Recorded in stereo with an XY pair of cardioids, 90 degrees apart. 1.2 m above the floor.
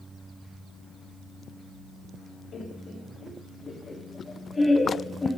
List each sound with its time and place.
2.5 s laughter: 55° left, 2.5 m; by 5.4 s 20° left, 2 m